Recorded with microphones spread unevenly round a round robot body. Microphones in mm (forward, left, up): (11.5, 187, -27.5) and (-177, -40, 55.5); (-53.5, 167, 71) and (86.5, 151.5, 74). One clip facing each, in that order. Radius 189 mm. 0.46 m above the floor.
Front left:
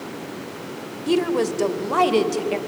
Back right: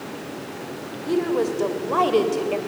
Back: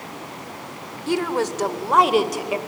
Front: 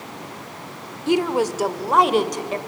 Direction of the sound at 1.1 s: 60° left.